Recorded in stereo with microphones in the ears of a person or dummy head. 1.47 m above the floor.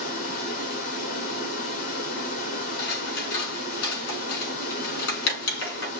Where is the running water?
45° left (ahead or behind), 1.4 m.